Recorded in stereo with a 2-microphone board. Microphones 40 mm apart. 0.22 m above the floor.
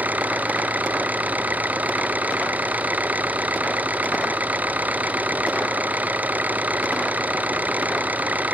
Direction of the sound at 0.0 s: 45° right (ahead or behind).